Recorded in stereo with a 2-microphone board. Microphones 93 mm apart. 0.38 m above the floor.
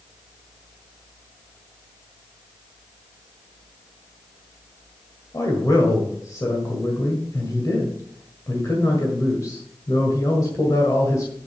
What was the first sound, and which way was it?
A man speaking, 40° left (ahead or behind).